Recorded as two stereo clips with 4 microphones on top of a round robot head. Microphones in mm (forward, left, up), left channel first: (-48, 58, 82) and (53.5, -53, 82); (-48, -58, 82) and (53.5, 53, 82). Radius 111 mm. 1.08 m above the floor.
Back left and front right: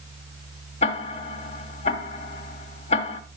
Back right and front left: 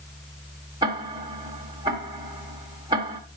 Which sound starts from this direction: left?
Ticking, at 0.8 s.